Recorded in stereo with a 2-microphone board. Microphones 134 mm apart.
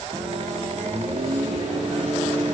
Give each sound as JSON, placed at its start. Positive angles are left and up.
{"t": 0.1, "sound": "a microwave", "side_deg": -45, "distance_m": 2.5}